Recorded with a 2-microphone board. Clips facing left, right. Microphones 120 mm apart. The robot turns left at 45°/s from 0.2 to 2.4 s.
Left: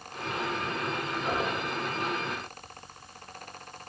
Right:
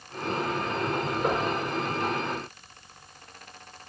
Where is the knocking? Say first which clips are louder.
Right 3 dB; 80° right, 5 m; by 1.5 s 70° right (ahead or behind), 5 m.